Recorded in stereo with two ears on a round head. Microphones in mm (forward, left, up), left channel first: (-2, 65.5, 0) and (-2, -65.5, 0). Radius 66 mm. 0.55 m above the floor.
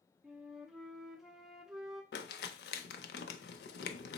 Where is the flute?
Centre (ahead or behind), 0.6 m.